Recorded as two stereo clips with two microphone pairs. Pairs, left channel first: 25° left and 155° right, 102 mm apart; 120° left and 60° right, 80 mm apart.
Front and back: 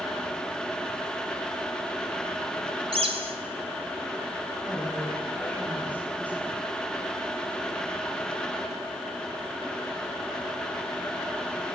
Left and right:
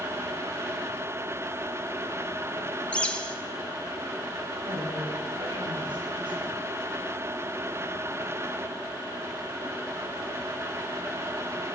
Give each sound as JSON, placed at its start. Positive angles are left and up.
{"t": 2.9, "sound": "a bird", "azimuth_deg": -165, "distance_m": 2.5}
{"t": 4.7, "sound": "a woman speaking", "azimuth_deg": -50, "distance_m": 8.5}